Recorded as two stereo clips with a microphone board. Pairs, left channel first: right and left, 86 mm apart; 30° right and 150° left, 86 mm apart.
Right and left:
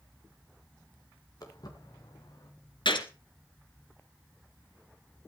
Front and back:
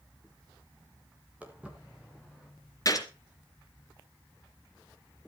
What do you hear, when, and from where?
1.4 s footsteps: 135° right, 5 m; by 2.5 s 125° right, 5.5 m
2.9 s a gunshot: 80° right, 3 m